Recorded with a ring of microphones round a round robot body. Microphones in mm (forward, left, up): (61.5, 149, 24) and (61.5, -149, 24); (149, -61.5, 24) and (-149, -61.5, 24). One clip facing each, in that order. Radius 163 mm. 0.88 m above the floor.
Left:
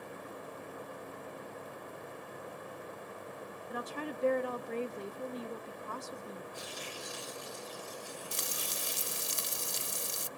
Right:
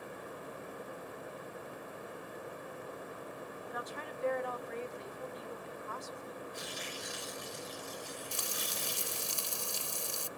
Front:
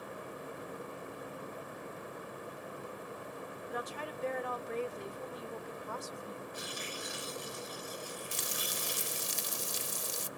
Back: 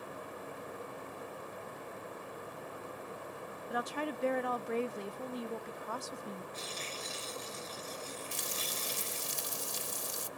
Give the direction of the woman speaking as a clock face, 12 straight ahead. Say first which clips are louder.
Left 8 dB, back 5 dB; 7 o'clock.